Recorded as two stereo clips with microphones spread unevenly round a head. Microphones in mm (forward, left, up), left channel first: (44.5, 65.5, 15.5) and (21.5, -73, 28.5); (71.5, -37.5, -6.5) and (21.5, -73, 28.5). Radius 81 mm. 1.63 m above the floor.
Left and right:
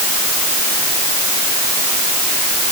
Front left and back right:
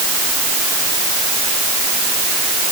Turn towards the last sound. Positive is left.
No sound to turn to.